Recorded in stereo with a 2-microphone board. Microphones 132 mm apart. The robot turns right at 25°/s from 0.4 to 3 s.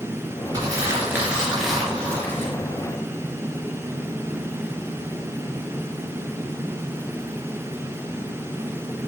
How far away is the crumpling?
About 3 m.